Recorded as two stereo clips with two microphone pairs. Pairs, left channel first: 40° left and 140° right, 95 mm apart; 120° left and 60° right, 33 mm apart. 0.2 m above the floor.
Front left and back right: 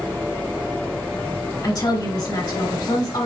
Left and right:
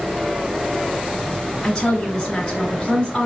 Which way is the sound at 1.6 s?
55° left.